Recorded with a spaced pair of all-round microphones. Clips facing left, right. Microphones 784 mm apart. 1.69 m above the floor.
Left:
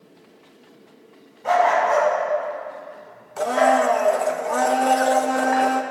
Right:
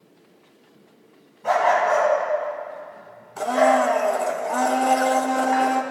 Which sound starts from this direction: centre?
A blender, at 3.4 s.